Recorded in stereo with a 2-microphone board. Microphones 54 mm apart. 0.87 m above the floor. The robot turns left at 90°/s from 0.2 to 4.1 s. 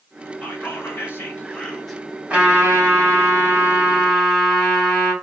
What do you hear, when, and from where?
0.4 s whispering: 140° left, 0.9 m; by 2.0 s 5° right, 0.9 m
2.3 s a trumpet: 20° right, 1.5 m; by 5.1 s straight behind, 1.5 m